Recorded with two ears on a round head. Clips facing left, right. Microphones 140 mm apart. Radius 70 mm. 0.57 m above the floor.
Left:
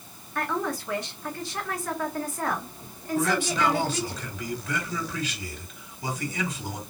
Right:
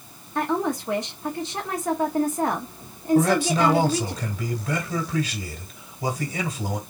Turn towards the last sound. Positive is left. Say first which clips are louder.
# right 5 dB
turn(degrees=-35)  # may be behind; listen again after turning